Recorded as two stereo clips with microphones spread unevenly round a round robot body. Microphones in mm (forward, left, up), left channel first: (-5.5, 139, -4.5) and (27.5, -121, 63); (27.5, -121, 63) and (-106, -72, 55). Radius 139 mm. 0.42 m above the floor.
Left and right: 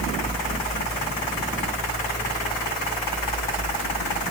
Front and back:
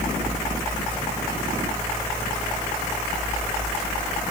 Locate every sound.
Only background noise.